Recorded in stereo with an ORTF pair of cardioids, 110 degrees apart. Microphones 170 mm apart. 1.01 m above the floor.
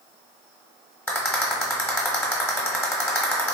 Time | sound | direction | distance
1.1 | a rattle | 10° left | 1.0 m